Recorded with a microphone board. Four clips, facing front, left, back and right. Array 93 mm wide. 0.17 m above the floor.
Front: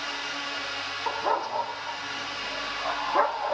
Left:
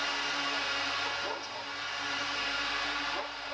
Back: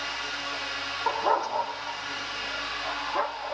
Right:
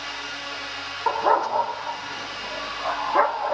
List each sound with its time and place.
1.1 s a dog barking: 105° right; by 3.5 s 70° right